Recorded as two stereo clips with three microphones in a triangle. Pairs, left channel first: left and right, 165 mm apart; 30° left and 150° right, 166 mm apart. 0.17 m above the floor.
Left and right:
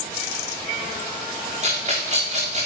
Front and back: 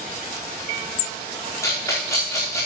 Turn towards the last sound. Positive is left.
turn(degrees=-45)